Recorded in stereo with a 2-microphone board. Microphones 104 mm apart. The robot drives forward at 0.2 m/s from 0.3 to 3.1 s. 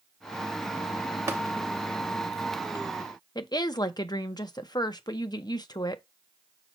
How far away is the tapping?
About 0.8 m.